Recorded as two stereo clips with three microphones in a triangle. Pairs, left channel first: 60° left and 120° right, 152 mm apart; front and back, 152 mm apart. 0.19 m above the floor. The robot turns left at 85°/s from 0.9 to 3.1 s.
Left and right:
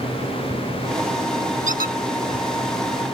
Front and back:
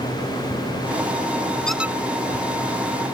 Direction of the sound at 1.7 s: 85° right.